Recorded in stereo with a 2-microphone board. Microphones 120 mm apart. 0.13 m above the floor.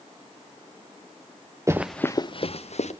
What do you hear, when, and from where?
1.7 s running footsteps: 25° right (ahead or behind), 0.6 m; by 2.9 s 70° left (ahead or behind), 1.1 m